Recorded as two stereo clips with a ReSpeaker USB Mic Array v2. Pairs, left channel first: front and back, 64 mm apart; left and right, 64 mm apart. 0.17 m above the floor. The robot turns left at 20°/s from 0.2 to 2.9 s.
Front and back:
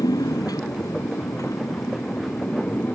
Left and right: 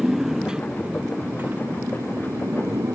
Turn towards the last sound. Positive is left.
turn(degrees=-60)